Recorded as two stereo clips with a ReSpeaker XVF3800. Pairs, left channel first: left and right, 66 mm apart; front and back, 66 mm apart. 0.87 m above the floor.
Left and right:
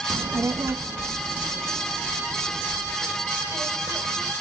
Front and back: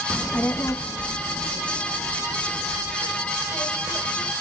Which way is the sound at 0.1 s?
85° right.